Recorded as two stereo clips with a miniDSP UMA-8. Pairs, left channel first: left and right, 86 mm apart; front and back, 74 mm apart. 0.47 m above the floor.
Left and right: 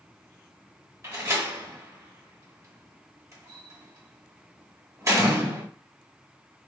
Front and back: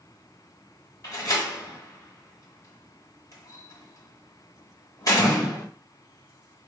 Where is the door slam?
40° right, 1.1 m.